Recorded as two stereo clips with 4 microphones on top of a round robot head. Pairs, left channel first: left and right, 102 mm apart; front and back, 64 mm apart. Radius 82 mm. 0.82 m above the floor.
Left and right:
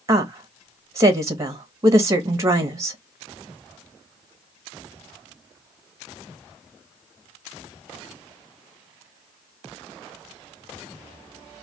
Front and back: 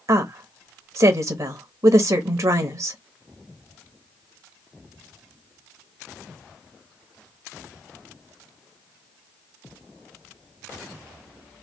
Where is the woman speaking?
150° right, 1.1 m.